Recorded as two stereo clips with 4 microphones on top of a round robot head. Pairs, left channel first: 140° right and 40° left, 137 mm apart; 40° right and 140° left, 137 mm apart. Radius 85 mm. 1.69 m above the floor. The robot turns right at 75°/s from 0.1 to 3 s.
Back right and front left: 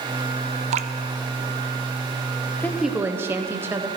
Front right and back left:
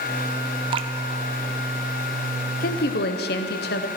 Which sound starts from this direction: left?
Dripping, at 0.7 s.